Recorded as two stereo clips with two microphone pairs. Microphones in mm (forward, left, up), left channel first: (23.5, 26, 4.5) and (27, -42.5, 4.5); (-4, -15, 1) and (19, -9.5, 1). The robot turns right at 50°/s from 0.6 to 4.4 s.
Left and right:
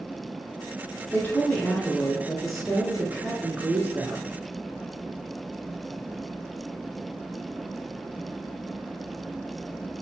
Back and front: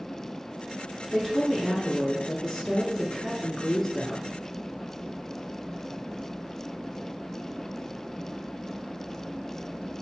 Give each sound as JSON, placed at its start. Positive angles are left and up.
{"t": 1.1, "sound": "a woman speaking", "azimuth_deg": 115, "distance_m": 1.2}